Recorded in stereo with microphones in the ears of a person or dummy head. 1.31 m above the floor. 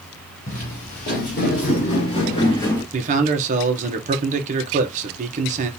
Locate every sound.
0.5 s footsteps: 35° left (ahead or behind), 1.9 m; by 2.8 s 15° left (ahead or behind), 1.6 m
2.9 s a man speaking: 40° right (ahead or behind), 1.2 m